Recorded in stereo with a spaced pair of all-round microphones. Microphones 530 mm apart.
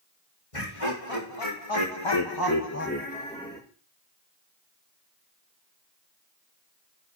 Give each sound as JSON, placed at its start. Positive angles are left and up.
{"t": 0.5, "sound": "laughter", "side_deg": 85, "distance_m": 2.5}